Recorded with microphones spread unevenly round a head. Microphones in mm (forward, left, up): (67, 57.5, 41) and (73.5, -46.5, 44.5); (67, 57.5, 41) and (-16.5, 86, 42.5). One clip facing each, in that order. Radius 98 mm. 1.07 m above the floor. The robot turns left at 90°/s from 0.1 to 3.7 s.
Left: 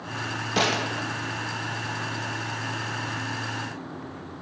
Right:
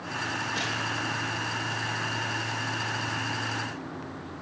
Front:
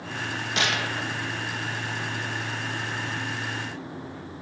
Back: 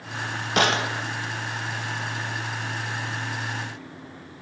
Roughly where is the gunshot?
Behind left.